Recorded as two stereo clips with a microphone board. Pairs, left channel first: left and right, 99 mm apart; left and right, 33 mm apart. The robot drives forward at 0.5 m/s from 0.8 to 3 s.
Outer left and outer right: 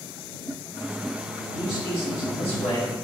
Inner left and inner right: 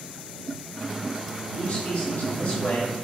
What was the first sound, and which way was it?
A man speaking, 60° left (ahead or behind).